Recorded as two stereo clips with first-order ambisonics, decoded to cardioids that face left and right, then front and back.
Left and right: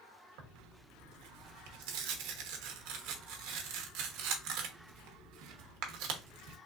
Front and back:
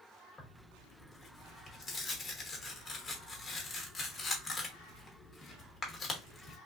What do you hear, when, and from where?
0.4 s tearing paper: 75° right, 1.0 m